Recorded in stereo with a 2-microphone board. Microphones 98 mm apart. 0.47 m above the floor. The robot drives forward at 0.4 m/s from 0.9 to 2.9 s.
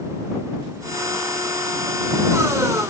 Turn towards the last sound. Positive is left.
No sound to turn to.